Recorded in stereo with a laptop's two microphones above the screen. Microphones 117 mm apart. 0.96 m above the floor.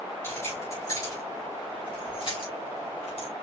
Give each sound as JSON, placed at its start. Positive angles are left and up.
{"t": 0.2, "sound": "keys jangling", "side_deg": 20, "distance_m": 3.0}